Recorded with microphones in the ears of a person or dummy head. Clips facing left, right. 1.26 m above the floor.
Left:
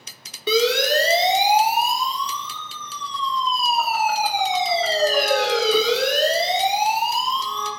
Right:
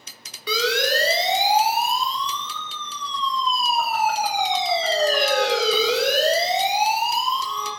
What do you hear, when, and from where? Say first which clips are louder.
0.5 s a siren: left 4 dB; 20° left (ahead or behind), 4.5 m; by 7.7 s 10° right (ahead or behind), 9 m